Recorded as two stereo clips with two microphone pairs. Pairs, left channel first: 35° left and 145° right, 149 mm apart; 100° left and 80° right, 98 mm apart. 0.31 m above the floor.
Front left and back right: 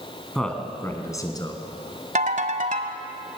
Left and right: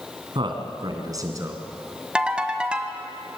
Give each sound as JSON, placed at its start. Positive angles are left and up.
{"t": 0.3, "sound": "a man speaking", "azimuth_deg": -55, "distance_m": 2.5}
{"t": 2.1, "sound": "a ringtone", "azimuth_deg": -160, "distance_m": 1.5}